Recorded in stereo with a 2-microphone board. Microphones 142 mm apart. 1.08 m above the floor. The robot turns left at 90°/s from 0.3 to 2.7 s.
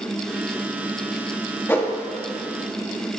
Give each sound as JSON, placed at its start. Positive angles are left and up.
{"t": 1.7, "sound": "a whoosh", "side_deg": 15, "distance_m": 0.7}